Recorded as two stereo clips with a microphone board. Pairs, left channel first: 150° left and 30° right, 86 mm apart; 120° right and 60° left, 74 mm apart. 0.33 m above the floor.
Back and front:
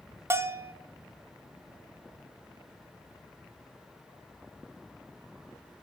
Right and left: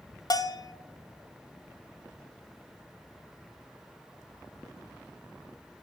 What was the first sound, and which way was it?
A bell, 90° right.